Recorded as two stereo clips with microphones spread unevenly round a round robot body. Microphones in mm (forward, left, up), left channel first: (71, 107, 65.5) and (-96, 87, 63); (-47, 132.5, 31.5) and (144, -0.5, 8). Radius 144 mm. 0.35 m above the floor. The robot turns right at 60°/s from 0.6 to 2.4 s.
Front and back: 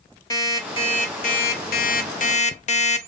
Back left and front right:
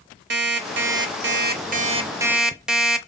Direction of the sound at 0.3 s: 60° right.